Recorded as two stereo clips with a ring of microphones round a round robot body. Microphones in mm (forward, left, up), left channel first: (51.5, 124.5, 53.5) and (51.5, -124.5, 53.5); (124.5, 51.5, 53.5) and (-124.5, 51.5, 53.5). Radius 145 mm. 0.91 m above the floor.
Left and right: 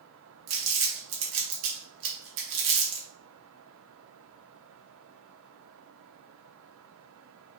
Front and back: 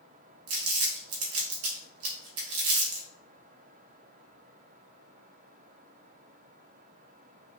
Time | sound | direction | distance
0.5 | crumpling | 140° right | 0.6 m